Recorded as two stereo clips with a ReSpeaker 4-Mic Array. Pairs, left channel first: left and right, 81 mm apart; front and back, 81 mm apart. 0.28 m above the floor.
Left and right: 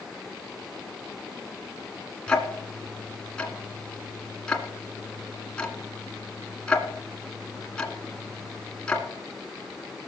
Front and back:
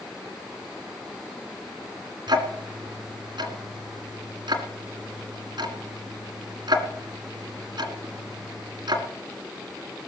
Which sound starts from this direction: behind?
Ticking, at 2.3 s.